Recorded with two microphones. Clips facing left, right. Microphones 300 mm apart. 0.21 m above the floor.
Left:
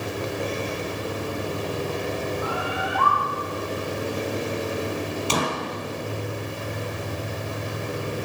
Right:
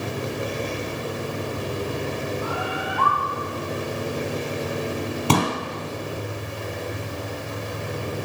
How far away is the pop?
About 3 m.